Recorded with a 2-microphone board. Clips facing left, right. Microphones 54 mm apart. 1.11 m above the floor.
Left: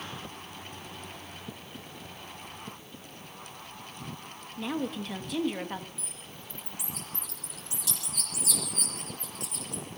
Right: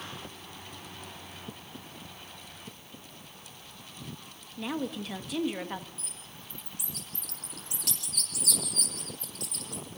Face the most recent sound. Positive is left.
turn(degrees=-60)  # may be behind; listen again after turning